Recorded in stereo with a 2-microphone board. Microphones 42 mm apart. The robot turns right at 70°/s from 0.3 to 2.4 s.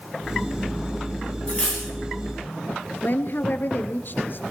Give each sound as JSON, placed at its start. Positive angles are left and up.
{"t": 1.5, "sound": "cutlery clinking", "azimuth_deg": 145, "distance_m": 6.0}
{"t": 3.0, "sound": "a woman speaking", "side_deg": 50, "distance_m": 2.0}